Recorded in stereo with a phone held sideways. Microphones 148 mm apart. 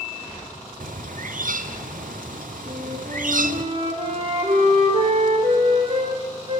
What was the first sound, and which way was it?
A bird, 65° right (ahead or behind).